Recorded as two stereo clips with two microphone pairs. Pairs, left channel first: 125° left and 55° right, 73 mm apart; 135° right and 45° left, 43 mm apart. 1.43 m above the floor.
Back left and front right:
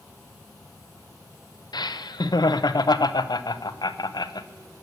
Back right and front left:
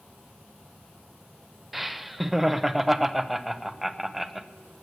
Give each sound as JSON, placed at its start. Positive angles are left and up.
{"t": 1.7, "sound": "laughter", "azimuth_deg": 130, "distance_m": 0.7}